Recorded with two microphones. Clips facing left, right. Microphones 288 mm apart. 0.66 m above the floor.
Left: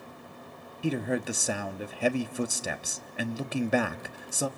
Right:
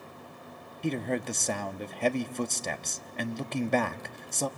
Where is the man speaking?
5° left (ahead or behind), 0.9 m.